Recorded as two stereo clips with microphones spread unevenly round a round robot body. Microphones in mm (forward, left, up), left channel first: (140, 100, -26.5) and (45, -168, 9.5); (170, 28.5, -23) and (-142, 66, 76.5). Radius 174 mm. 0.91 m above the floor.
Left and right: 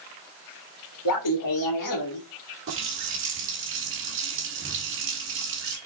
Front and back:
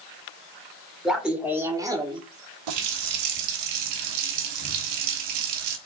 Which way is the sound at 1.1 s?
80° left.